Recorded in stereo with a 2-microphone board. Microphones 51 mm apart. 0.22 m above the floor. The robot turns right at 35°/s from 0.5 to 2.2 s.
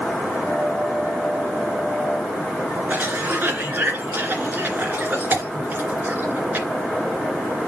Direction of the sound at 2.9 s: 35° right (ahead or behind).